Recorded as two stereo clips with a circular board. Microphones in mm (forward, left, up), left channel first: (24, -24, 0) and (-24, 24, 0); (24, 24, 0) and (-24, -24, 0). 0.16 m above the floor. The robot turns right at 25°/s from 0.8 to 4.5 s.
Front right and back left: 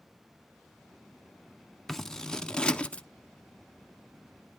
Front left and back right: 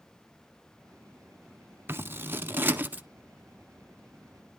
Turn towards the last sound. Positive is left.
turn(degrees=-65)